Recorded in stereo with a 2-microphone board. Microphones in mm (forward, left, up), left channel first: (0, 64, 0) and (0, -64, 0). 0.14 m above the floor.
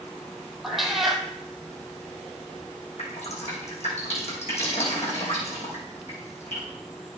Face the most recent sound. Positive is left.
turn(degrees=60)  # may be behind; listen again after turning